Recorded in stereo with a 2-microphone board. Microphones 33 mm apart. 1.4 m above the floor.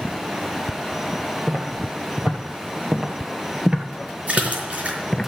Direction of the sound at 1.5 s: 55° right (ahead or behind).